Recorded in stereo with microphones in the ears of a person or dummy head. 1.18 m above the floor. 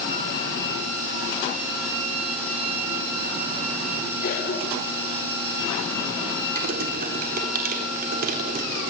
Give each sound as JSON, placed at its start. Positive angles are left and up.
{"t": 4.2, "sound": "a cough", "side_deg": 55, "distance_m": 3.5}
{"t": 6.5, "sound": "typing on a keyboard", "side_deg": -55, "distance_m": 3.5}